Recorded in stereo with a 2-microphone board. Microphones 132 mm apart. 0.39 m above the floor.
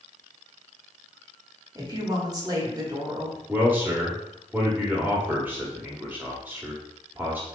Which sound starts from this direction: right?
A woman speaking, at 1.8 s.